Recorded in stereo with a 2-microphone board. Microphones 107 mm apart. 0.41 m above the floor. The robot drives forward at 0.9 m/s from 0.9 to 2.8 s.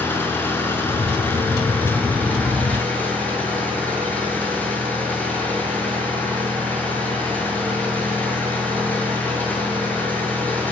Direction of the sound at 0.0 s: 20° left (ahead or behind).